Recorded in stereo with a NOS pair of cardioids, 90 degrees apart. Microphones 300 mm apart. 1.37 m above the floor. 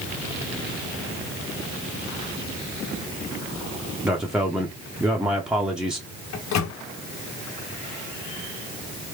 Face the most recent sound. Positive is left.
turn(degrees=65)